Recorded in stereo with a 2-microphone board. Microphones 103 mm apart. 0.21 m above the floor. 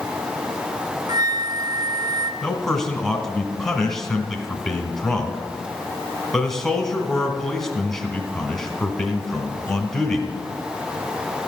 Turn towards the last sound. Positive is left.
turn(degrees=5)  # may be behind; listen again after turning